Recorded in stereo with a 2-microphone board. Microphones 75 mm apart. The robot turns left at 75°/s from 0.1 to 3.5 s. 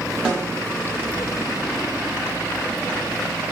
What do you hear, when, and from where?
0.2 s a snare drum: 15° right (ahead or behind), 1.1 m; by 0.4 s 5° right (ahead or behind), 1.1 m